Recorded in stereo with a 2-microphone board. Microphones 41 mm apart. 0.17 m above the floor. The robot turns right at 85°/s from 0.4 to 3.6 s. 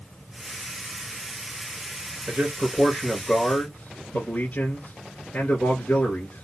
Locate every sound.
2.3 s a man speaking: 70° right, 2 m; by 6.4 s 45° left, 2 m